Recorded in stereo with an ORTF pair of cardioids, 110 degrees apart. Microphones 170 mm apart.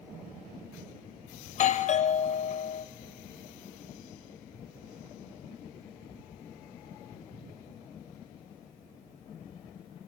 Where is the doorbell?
45° left, 0.7 m.